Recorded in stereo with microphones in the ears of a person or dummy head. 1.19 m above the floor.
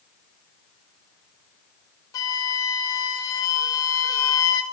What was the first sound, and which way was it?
A flute, 20° left (ahead or behind).